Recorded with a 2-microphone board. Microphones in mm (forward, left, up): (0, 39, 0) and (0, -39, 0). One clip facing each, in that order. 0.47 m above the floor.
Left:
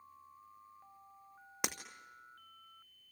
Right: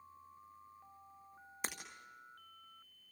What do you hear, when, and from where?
1.6 s breaking glass: 75° left (ahead or behind), 2 m